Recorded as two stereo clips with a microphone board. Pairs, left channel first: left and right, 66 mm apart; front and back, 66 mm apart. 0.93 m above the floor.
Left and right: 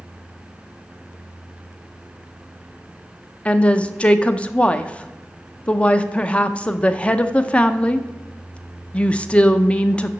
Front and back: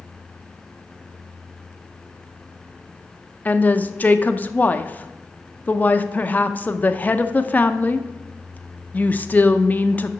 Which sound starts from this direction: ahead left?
A woman speaking, at 3.5 s.